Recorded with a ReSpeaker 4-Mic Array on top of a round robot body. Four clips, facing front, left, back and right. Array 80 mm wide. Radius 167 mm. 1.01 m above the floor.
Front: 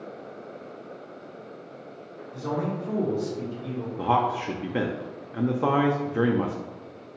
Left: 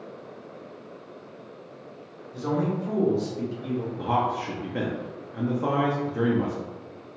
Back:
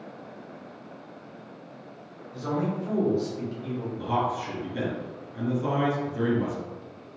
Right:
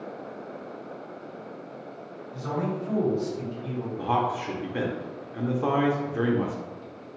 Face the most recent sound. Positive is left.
turn(degrees=-5)